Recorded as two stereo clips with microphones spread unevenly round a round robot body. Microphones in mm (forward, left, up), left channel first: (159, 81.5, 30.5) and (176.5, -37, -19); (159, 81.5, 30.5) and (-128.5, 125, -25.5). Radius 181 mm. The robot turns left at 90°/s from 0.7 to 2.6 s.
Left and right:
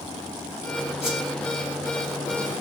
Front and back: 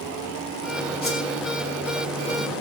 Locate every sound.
1.0 s a whoosh: 55° left, 4.5 m; by 1.2 s 35° left, 4.5 m